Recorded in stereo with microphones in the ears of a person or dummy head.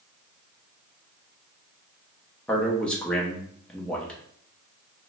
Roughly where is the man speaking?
Centre.